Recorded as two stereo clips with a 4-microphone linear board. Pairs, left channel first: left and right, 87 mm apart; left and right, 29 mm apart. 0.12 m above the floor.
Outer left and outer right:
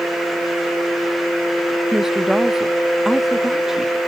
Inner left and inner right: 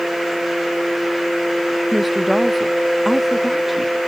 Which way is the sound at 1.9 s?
5° right (ahead or behind).